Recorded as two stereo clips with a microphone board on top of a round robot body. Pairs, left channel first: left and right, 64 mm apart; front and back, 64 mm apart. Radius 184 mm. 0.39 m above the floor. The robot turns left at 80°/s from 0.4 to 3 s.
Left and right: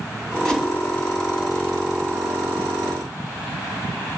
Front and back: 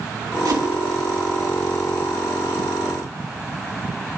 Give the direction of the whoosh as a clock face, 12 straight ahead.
6 o'clock.